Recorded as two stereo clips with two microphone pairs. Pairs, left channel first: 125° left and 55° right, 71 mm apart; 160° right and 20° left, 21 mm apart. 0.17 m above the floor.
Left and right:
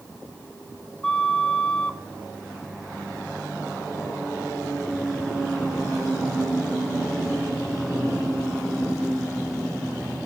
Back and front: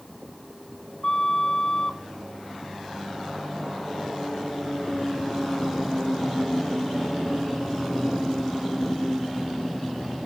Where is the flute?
165° right, 1.3 m.